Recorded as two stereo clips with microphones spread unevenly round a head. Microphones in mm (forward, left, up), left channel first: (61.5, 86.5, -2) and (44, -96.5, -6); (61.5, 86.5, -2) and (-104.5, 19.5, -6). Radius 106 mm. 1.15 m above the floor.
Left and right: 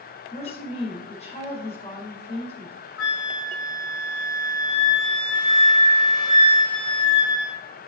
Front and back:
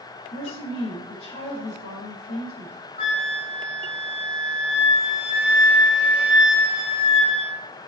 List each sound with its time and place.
0.3 s a woman speaking: 30° left, 4.5 m
3.0 s a flute: 80° left, 3 m